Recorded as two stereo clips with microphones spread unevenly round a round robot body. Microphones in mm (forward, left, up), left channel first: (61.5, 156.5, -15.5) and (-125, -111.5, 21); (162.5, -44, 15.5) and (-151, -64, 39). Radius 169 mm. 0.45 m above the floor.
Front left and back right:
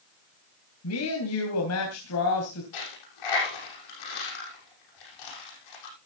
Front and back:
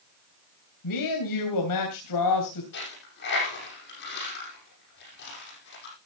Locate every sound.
0.8 s a woman speaking: 15° left, 3 m
2.7 s a dropped coin: 65° left, 7 m